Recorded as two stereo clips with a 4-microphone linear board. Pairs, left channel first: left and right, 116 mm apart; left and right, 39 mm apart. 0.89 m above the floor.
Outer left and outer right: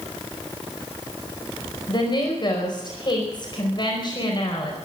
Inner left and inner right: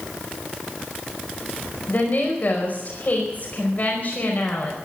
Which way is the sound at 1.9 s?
40° left (ahead or behind).